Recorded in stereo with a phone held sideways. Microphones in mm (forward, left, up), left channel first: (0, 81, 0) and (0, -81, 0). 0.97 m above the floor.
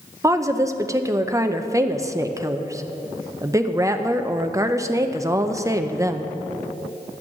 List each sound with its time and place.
0.2 s a woman speaking: 20° right (ahead or behind), 0.6 m